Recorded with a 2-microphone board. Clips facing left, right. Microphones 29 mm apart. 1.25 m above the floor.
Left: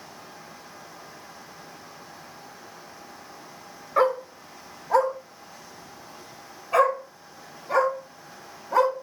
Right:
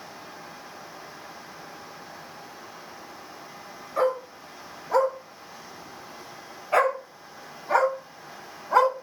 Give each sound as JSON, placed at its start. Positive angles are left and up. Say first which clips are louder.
{"t": 4.0, "sound": "a dog barking", "louder": "left 3 dB", "side_deg": 20, "distance_m": 1.1}